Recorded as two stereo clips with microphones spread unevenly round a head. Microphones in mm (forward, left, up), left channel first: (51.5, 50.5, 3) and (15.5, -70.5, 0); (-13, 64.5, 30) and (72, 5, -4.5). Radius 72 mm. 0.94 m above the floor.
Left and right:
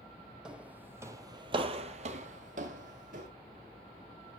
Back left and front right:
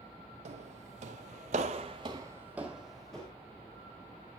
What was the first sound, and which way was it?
Footsteps, 25° right.